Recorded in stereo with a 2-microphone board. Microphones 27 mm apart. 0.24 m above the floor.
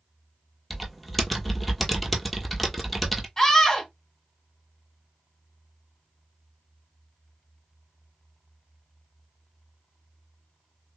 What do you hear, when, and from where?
0.7 s typing on a keyboard: 5° right (ahead or behind), 1.0 m
3.4 s a scream: 15° left (ahead or behind), 1.5 m